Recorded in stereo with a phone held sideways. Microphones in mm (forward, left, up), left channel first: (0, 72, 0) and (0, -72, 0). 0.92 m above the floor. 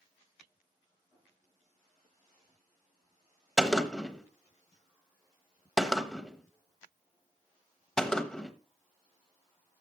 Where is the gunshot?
5° left (ahead or behind), 0.9 m.